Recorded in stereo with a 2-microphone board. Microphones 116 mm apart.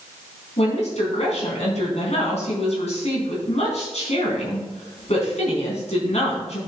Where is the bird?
I don't hear a bird.